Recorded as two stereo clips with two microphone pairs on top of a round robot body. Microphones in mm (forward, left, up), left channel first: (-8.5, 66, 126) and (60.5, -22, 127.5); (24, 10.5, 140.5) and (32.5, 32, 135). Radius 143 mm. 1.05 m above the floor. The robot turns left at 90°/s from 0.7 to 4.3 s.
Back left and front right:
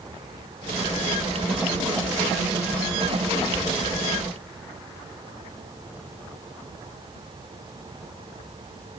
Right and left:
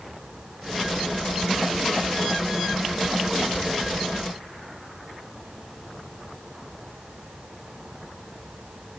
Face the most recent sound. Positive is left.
No sound to turn to.